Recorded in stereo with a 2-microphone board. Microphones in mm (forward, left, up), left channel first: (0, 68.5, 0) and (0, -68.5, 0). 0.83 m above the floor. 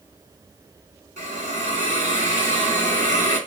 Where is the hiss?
70° right (ahead or behind), 2.5 m.